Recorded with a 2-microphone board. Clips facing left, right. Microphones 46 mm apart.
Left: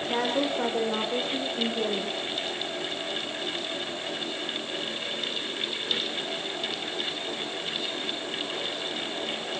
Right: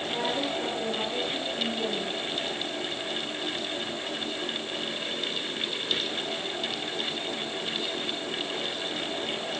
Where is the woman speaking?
65° left (ahead or behind), 9.5 m; by 2.2 s 70° left (ahead or behind), 11 m.